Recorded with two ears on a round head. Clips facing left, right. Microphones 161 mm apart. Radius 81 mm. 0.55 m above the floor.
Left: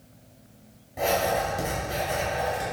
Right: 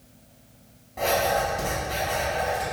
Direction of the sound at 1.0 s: 20° left (ahead or behind).